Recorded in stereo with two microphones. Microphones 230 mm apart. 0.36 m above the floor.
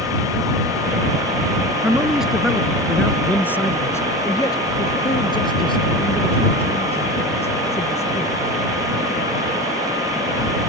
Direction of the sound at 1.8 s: 5° right (ahead or behind).